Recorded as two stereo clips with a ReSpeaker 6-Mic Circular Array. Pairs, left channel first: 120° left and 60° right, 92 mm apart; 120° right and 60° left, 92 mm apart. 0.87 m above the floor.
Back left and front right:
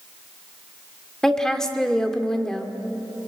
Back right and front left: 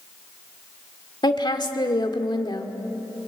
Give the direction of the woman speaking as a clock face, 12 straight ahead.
5 o'clock.